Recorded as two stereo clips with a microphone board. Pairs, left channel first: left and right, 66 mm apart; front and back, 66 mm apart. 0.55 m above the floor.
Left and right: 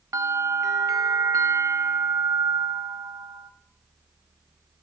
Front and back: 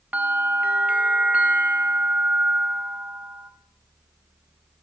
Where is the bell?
110° right, 0.6 m.